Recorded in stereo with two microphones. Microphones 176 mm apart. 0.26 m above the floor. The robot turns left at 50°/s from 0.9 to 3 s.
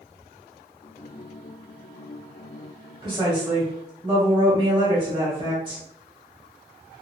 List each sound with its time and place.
3.0 s a woman speaking: 30° right (ahead or behind), 1.4 m